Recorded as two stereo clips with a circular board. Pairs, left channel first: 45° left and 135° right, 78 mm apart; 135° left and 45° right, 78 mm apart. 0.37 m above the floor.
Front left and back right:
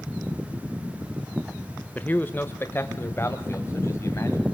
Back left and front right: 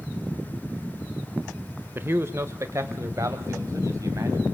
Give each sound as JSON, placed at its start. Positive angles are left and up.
{"t": 1.9, "sound": "a man speaking", "azimuth_deg": -10, "distance_m": 0.9}